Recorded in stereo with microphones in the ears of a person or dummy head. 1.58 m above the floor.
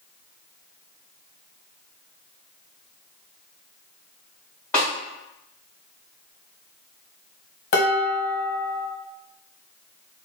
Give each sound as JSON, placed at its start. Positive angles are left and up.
{"t": 4.7, "sound": "a snare drum", "side_deg": 10, "distance_m": 1.9}
{"t": 7.7, "sound": "dishes clattering", "side_deg": 50, "distance_m": 0.7}